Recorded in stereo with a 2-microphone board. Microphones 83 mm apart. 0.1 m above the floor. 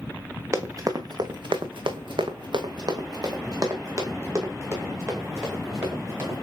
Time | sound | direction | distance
0.5 | running footsteps | 35° right (ahead or behind) | 0.8 m